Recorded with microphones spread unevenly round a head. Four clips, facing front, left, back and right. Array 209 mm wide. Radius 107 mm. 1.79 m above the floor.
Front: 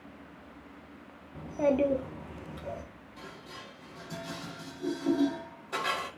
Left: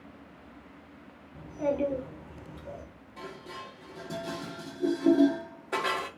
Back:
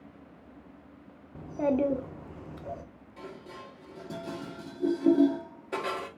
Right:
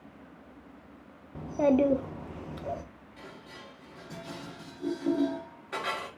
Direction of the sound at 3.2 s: 140° left.